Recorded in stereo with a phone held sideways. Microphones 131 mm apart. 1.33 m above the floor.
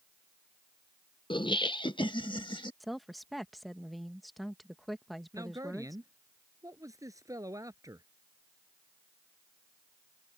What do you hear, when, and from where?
1.3 s laughter: 35° left (ahead or behind)
2.8 s a woman speaking: centre (ahead or behind)
5.3 s a man speaking: 25° right (ahead or behind)